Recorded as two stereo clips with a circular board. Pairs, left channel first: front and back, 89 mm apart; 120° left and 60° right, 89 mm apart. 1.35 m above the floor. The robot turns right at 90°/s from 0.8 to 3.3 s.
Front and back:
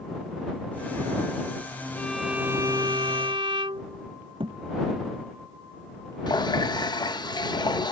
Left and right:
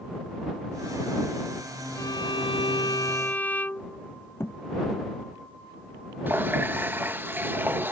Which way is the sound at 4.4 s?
Straight behind.